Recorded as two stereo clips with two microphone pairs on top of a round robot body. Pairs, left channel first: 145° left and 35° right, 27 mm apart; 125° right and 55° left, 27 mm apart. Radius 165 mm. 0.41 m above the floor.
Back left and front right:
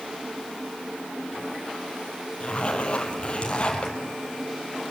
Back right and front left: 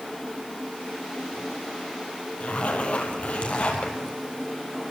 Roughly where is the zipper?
Behind.